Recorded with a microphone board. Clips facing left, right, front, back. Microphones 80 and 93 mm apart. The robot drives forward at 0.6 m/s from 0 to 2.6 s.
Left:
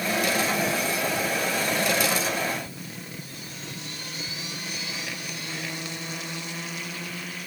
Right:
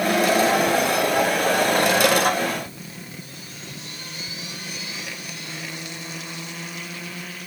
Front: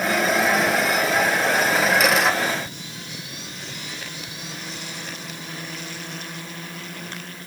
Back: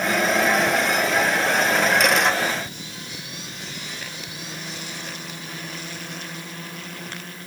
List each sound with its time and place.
Only background noise.